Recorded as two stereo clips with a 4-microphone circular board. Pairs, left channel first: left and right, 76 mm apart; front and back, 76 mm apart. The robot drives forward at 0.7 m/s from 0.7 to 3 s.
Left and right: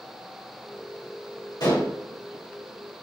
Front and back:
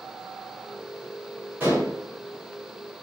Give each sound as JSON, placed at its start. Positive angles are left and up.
{"t": 1.6, "sound": "dishes clattering", "azimuth_deg": 115, "distance_m": 4.0}